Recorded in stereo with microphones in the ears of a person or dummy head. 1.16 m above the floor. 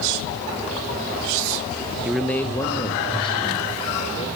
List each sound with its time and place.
2.0 s a man speaking: 10° right (ahead or behind), 0.8 m; by 4.3 s 30° left (ahead or behind), 4 m